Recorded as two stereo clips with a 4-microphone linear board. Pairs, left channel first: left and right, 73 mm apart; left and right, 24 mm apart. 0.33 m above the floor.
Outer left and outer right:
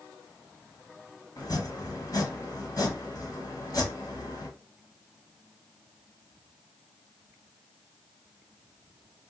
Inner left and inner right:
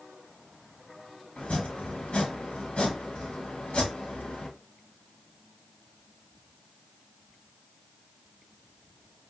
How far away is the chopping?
About 1.3 m.